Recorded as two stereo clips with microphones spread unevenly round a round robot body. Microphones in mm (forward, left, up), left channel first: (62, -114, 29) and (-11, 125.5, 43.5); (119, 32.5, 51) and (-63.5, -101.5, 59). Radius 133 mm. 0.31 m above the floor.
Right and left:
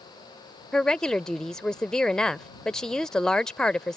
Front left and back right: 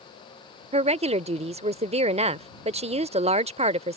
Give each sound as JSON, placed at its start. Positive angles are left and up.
{"t": 0.7, "sound": "a woman speaking", "azimuth_deg": -150}